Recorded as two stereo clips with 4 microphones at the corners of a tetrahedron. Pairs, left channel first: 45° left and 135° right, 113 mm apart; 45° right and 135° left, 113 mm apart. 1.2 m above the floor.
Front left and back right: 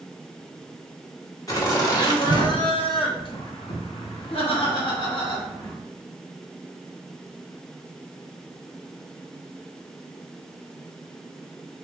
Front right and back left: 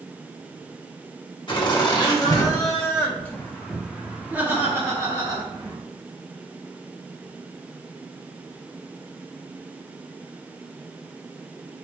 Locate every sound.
1.5 s laughter: 10° right, 1.9 m; by 5.8 s 95° left, 1.6 m